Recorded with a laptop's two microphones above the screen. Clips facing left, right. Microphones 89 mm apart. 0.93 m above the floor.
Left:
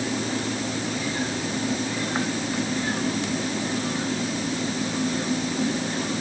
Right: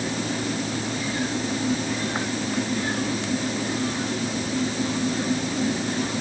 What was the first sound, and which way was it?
Only background noise.